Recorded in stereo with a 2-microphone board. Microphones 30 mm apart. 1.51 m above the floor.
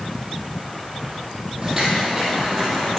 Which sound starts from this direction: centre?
Footsteps, at 1.6 s.